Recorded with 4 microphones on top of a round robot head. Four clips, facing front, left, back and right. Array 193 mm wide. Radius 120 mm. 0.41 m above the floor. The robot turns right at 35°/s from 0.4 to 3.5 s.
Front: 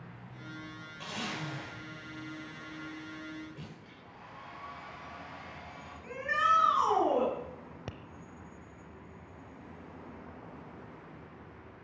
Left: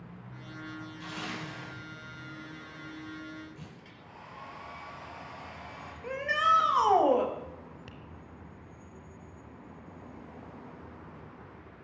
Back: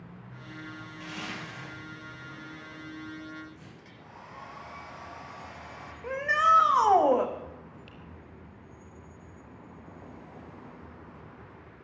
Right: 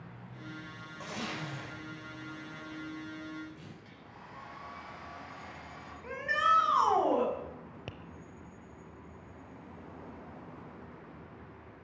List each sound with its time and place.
1.0 s a zipper: 70° right, 7 m; by 3.7 s 15° left, 7 m
3.8 s a hair dryer: 150° left, 3.5 m
6.0 s a shout: 155° left, 3.5 m
7.9 s tapping: 35° right, 0.9 m